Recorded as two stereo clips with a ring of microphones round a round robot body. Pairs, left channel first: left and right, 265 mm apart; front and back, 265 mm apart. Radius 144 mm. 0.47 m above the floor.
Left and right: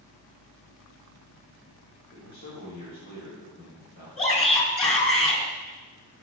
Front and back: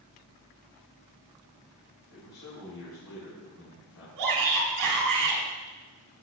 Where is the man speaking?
35° left, 4.5 m.